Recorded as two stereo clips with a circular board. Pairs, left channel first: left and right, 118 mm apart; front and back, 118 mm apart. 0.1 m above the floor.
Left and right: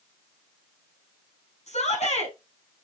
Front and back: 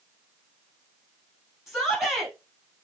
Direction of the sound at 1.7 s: 90° left.